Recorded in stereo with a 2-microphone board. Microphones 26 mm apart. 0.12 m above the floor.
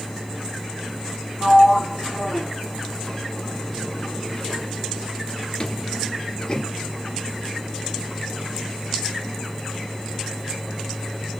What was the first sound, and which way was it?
A sliding door, 35° left (ahead or behind).